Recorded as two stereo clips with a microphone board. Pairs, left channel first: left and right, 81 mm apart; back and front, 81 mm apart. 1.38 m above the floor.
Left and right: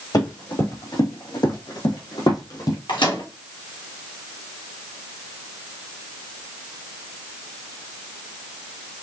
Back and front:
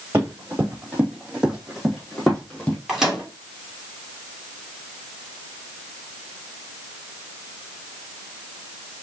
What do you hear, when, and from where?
0.1 s running footsteps: 65° left, 3 m; by 2.8 s 110° left, 2.5 m
2.9 s a microwave: 85° left, 2.5 m